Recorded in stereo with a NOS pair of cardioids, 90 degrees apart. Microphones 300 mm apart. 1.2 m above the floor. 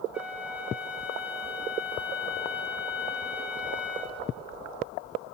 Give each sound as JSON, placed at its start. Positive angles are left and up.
{"t": 0.1, "sound": "a flute", "azimuth_deg": -5, "distance_m": 0.7}